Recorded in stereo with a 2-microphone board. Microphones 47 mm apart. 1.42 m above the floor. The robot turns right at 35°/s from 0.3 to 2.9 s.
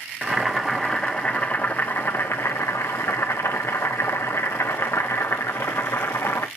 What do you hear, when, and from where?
0.2 s boiling: 15° right, 0.7 m; by 6.5 s 80° left, 0.7 m